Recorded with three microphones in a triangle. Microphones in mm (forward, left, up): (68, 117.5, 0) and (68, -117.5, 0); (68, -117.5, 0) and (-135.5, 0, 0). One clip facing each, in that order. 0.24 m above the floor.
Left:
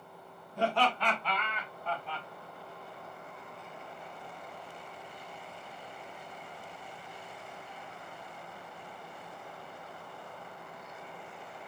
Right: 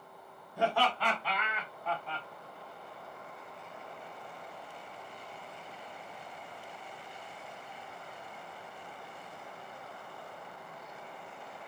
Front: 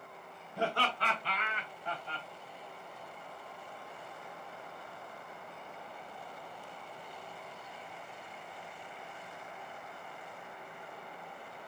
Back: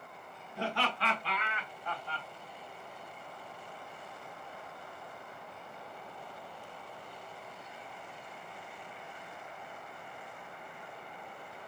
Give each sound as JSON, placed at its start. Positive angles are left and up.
{"t": 0.6, "sound": "laughter", "azimuth_deg": -10, "distance_m": 2.5}